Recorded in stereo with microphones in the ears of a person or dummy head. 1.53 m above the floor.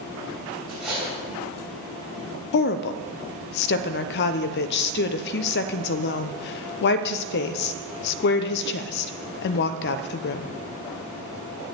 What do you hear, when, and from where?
0.7 s cutlery clinking: 5° right (ahead or behind), 4 m
2.5 s a woman speaking: 65° left (ahead or behind), 0.7 m